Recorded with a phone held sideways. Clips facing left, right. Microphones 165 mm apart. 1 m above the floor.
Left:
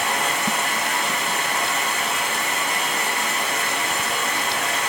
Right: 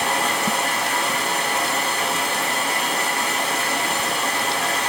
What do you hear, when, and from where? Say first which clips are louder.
0.0 s running water: right 2 dB; 35° right (ahead or behind), 1.0 m